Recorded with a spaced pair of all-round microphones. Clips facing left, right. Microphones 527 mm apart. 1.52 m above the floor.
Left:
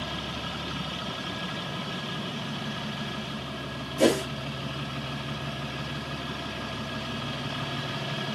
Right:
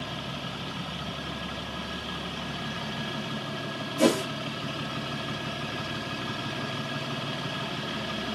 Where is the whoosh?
30° right (ahead or behind), 0.9 m.